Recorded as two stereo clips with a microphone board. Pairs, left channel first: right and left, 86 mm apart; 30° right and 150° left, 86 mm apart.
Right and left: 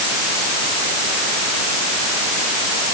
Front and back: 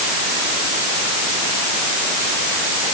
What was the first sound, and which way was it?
Only background noise.